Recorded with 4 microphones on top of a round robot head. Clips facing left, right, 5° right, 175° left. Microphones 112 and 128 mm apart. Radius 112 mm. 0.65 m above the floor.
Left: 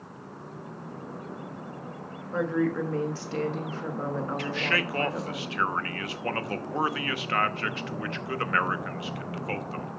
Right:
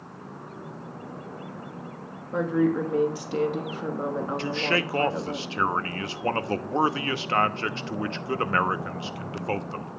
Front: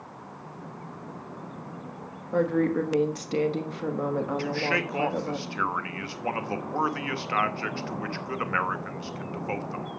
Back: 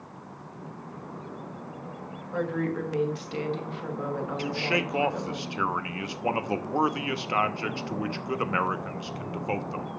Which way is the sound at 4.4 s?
130° right.